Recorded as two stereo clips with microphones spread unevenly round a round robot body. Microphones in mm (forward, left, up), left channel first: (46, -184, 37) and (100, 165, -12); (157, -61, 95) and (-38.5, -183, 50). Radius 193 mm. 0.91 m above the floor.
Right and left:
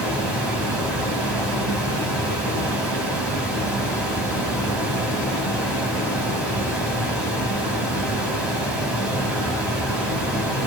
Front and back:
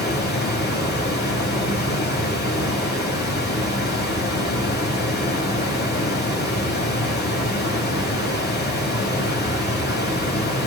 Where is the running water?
10° right, 1.9 m.